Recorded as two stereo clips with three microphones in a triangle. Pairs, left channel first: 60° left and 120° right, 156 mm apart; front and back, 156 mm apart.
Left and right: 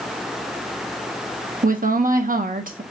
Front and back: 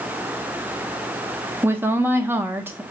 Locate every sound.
1.6 s a woman speaking: 105° right, 0.5 m